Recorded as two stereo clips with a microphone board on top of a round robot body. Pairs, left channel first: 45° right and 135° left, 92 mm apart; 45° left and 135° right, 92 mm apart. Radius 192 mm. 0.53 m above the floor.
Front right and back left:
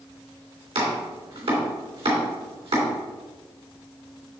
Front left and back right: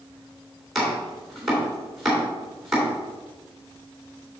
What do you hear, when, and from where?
0.8 s chopping: 135° left, 3 m